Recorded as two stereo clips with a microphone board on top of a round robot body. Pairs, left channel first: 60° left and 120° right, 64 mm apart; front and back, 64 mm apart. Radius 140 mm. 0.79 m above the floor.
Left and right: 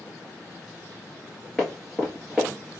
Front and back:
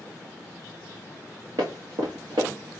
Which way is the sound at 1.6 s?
150° left.